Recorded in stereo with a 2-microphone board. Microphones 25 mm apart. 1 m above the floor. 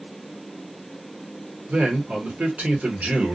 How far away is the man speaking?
About 1.2 m.